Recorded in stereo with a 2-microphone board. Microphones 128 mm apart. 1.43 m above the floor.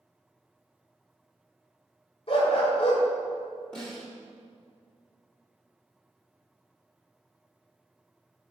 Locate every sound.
2.3 s a dog barking: 50° left (ahead or behind), 2 m
3.7 s a snare drum: 5° left (ahead or behind), 2.5 m